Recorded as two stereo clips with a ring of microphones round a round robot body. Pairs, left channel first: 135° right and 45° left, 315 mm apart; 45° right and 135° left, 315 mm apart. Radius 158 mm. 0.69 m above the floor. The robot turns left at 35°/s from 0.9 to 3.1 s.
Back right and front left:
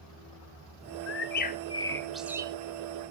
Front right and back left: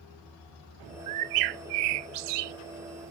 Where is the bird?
175° left, 0.5 m; by 2.5 s 120° left, 0.5 m.